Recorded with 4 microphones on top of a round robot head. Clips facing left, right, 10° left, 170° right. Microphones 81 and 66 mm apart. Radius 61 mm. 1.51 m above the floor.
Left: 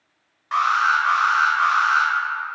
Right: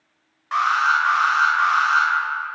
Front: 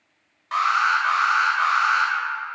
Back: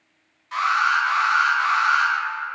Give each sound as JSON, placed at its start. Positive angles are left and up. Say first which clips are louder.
{"t": 0.5, "sound": "an alarm", "louder": "even, even", "azimuth_deg": 0, "distance_m": 0.9}